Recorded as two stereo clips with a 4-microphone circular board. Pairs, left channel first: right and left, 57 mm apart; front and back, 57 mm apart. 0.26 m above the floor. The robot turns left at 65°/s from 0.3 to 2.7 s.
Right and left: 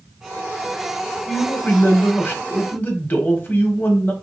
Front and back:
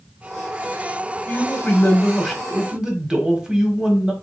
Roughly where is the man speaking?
Ahead.